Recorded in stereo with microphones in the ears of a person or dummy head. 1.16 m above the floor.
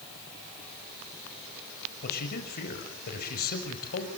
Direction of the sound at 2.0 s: 55° left (ahead or behind).